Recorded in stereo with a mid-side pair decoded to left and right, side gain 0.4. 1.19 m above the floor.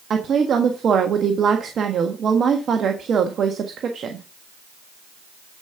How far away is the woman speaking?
About 1.5 m.